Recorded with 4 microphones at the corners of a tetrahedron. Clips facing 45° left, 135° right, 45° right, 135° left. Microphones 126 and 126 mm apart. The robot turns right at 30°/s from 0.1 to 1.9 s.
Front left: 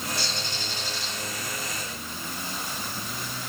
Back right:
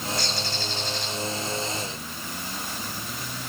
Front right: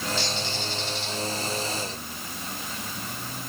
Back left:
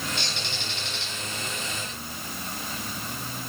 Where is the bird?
105° left, 3 m; by 1.1 s 135° left, 3 m.